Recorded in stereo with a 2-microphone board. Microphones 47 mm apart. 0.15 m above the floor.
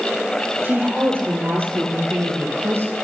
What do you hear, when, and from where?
0.6 s a woman speaking: 45° right (ahead or behind), 5 m; by 2.9 s 55° right (ahead or behind), 3.5 m